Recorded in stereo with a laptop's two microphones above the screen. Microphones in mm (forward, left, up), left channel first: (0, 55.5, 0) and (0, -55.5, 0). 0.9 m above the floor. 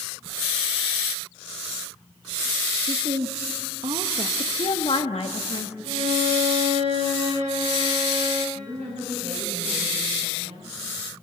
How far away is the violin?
About 6 m.